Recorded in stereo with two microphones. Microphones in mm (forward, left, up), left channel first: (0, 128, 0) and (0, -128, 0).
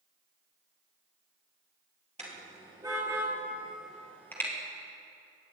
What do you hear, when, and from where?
2.2 s a car horn: 25° right (ahead or behind), 3.5 m; by 4.5 s 10° left (ahead or behind), 3.5 m